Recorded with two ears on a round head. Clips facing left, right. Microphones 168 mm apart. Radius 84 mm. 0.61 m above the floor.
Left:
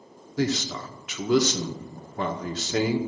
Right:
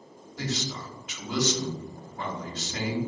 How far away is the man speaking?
About 1.4 m.